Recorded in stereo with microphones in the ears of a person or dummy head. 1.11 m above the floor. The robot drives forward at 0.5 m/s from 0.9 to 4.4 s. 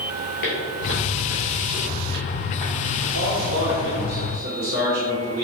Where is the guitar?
I don't hear a guitar.